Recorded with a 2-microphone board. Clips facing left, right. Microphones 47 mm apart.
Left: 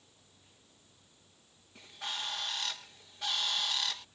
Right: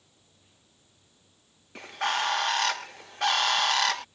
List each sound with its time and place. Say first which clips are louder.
1.8 s a bird: right 13 dB; 75° right (ahead or behind)